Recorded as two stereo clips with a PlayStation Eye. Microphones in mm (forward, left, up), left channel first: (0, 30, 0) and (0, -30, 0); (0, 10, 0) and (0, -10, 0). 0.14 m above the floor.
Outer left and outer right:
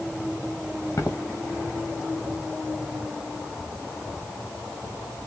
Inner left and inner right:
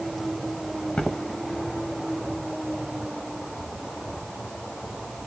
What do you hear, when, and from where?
1.0 s footsteps: 50° left (ahead or behind), 1.4 m